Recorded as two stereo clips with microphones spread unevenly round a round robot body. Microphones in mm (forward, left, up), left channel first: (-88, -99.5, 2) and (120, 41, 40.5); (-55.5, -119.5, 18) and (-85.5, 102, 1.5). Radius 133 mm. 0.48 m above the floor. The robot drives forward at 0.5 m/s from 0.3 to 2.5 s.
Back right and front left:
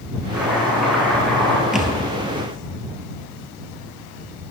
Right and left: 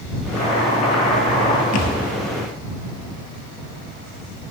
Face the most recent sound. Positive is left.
turn(degrees=-65)